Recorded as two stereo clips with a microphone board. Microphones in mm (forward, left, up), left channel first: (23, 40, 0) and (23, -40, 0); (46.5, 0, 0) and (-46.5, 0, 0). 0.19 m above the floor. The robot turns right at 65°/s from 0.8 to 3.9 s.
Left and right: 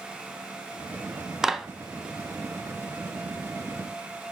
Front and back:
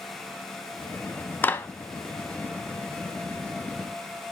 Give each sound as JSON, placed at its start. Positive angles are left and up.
{"t": 1.4, "sound": "a clap", "azimuth_deg": -20, "distance_m": 0.8}